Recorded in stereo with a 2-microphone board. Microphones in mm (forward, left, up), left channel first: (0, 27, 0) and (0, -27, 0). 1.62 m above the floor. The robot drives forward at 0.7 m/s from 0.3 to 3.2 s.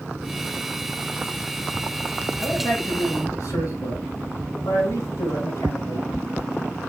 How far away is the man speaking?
About 6.5 m.